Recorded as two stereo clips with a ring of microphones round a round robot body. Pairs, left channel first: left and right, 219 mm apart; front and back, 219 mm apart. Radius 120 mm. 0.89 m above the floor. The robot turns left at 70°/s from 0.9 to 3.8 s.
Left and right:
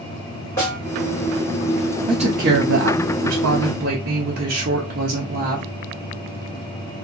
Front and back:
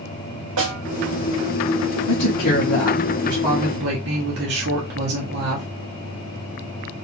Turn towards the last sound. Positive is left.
turn(degrees=-140)